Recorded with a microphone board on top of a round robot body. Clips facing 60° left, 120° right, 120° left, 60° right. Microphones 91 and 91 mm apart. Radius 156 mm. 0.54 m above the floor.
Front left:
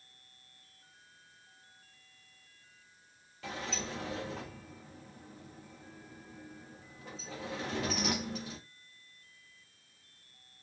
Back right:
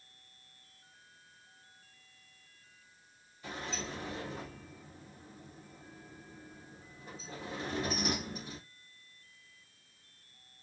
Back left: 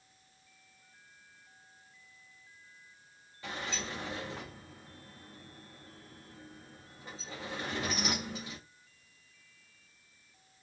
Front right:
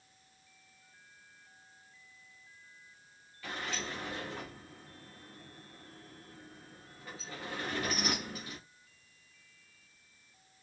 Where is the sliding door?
50° left, 1.1 m.